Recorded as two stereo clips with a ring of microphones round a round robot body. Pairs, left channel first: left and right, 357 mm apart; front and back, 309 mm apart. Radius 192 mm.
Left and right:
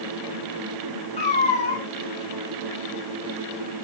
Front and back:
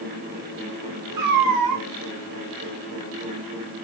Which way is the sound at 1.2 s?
165° left.